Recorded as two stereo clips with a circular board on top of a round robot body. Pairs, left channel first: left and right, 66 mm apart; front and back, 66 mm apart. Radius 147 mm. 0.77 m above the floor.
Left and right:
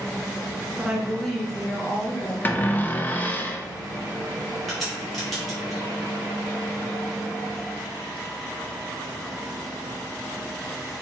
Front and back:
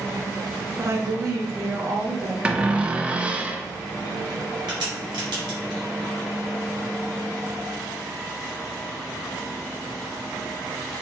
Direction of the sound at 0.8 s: 155° right.